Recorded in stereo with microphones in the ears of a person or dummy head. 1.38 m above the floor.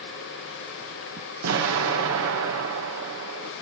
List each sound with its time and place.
1.4 s an explosion: 85° right, 1.1 m